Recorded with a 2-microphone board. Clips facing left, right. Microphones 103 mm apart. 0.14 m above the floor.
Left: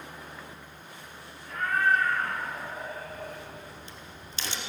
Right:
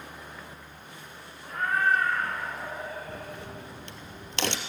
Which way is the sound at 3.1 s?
75° right (ahead or behind).